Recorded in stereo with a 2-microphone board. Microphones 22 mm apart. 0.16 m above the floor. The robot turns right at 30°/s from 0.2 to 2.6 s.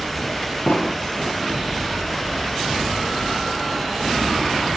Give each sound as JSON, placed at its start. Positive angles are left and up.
{"t": 0.7, "sound": "an explosion", "side_deg": 70, "distance_m": 1.8}